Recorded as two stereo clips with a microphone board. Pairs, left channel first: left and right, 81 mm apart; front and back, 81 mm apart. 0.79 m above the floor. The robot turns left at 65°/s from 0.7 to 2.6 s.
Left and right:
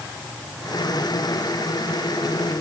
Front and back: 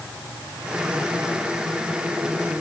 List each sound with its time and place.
Only background noise.